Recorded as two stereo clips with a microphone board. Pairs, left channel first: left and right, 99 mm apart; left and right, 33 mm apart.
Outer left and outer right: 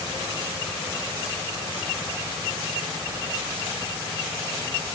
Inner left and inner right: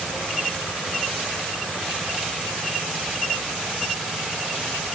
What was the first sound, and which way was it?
Only background noise.